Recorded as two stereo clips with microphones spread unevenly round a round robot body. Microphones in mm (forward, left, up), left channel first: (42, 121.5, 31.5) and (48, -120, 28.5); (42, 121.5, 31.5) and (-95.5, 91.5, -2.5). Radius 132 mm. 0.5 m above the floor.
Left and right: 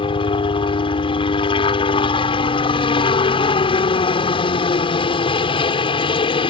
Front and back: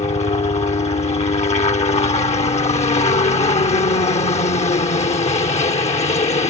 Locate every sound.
0.0 s a helicopter: 35° left